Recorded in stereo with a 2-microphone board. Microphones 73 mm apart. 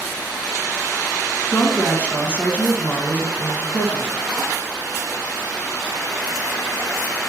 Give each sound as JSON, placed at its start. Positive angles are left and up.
{"t": 1.5, "sound": "a woman speaking", "side_deg": 25, "distance_m": 1.4}